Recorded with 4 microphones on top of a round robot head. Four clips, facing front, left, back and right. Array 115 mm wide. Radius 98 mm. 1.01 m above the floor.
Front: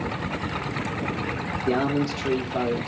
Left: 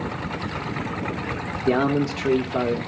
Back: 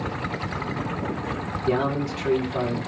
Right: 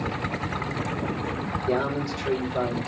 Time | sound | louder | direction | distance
1.7 | a man speaking | left 6 dB, even | 80° left | 3 m